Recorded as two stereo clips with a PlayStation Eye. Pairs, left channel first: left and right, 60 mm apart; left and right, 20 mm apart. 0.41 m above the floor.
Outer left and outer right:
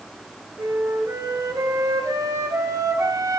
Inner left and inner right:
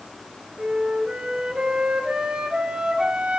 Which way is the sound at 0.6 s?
65° right (ahead or behind).